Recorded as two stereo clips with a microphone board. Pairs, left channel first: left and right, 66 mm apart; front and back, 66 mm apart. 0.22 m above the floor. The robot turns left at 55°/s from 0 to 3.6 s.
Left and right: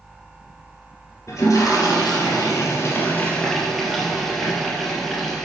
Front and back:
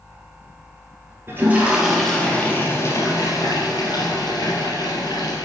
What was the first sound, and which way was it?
A toilet flushing, 130° left.